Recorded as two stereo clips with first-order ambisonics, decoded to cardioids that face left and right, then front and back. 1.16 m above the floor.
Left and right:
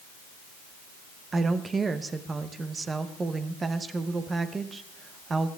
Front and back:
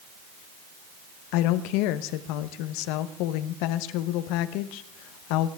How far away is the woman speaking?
About 0.9 m.